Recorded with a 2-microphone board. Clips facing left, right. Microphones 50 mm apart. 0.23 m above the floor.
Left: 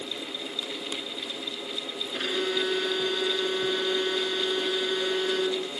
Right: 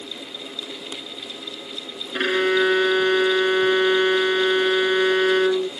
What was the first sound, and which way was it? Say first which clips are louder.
A violin: right 9 dB; 55° right (ahead or behind).